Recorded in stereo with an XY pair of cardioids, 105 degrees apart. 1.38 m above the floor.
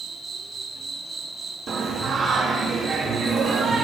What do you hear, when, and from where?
0.0 s an insect: 35° right, 0.8 m
1.7 s singing: 55° right, 1.6 m